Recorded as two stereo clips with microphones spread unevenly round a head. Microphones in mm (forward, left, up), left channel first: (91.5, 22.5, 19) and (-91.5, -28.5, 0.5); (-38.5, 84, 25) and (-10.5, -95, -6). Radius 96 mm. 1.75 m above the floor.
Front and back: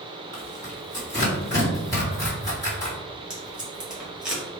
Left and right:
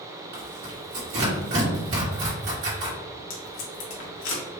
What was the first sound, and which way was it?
Tearing paper, 60° right.